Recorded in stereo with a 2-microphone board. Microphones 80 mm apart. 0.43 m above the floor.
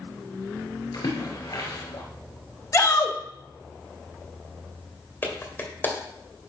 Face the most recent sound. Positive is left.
turn(degrees=25)  # may be behind; listen again after turning